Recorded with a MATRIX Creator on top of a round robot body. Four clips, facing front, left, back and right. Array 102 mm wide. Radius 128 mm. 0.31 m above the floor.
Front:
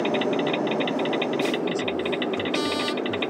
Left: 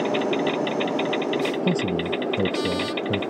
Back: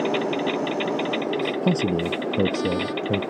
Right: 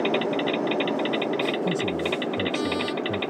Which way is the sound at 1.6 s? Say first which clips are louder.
Left 2 dB, back 3 dB; 165° left.